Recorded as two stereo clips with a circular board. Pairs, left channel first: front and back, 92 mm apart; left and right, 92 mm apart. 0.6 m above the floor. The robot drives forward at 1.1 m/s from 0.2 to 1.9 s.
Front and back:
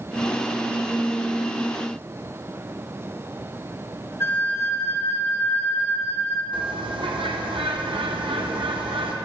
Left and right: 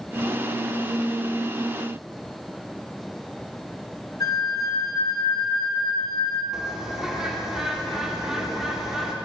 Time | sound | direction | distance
4.2 | a flute | 55° left | 0.6 m
6.5 | a bird | 175° right | 0.7 m